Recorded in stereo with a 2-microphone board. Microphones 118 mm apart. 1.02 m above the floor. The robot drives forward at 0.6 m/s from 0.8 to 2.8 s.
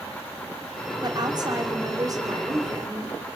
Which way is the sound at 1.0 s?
40° right (ahead or behind).